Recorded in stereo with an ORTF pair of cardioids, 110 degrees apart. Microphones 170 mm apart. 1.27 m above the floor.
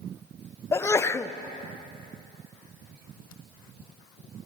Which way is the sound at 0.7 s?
15° left.